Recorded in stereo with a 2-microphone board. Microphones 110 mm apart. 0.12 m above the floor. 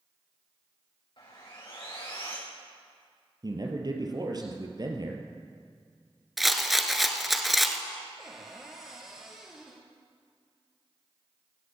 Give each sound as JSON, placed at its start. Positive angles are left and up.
{"t": 1.2, "sound": "sawing", "side_deg": 50, "distance_m": 5.0}
{"t": 3.4, "sound": "a man speaking", "side_deg": -40, "distance_m": 2.5}
{"t": 6.4, "sound": "a rattle", "side_deg": 0, "distance_m": 1.0}
{"t": 8.2, "sound": "a cupboard door", "side_deg": -5, "distance_m": 2.5}